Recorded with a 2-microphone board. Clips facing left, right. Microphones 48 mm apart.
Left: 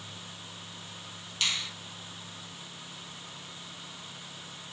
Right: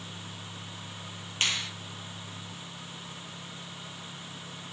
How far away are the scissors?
I don't hear scissors.